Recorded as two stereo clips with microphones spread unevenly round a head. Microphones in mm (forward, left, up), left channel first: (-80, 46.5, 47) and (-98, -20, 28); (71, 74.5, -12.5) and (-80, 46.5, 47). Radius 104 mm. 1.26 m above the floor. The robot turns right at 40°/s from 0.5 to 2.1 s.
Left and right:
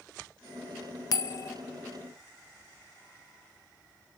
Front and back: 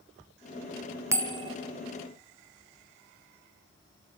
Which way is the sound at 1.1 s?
110° left.